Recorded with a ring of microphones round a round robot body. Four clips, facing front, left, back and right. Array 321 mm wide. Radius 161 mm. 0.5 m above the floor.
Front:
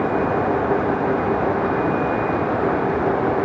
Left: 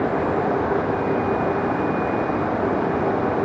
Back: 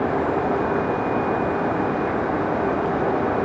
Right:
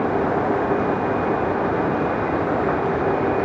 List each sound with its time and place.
Only background noise.